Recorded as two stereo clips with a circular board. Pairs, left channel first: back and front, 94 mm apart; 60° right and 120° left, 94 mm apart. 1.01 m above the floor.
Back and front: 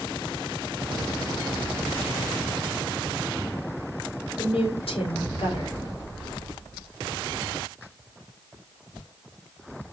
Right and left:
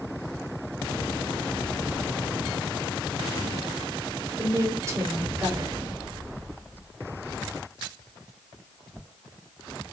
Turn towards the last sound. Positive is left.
turn(degrees=180)